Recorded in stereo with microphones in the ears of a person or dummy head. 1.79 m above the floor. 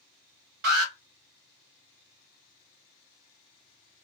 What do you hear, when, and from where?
0.6 s an alarm: 60° right (ahead or behind), 1.6 m